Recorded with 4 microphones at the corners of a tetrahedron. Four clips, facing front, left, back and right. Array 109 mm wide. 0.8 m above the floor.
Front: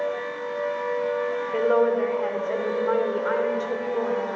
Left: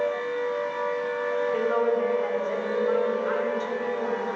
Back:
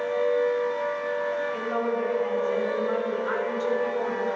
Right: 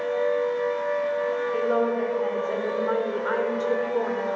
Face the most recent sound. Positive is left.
turn(degrees=-60)